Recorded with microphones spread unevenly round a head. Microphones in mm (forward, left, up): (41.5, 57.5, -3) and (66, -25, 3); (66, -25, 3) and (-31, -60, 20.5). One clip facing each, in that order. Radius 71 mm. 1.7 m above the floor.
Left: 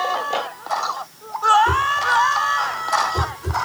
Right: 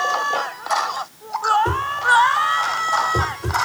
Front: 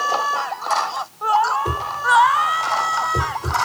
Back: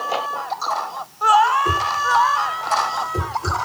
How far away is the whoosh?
About 2.5 m.